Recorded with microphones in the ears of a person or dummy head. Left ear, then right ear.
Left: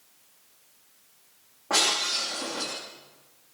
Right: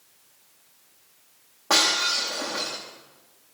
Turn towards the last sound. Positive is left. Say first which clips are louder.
# right 3 dB
turn(degrees=-75)  # may be behind; listen again after turning